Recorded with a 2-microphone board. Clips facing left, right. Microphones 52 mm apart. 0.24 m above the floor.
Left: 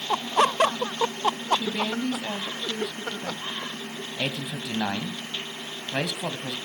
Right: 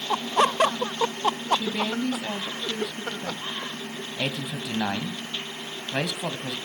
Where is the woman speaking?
10° right (ahead or behind), 1.2 m.